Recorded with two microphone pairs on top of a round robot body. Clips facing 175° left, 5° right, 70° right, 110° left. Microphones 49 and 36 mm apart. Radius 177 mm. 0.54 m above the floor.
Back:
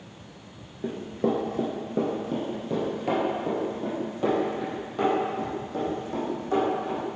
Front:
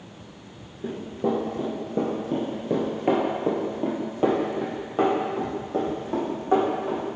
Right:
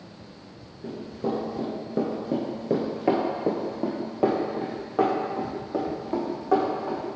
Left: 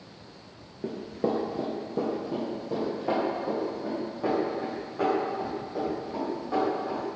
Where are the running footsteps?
140° left, 0.8 m; by 7.2 s 65° right, 3 m.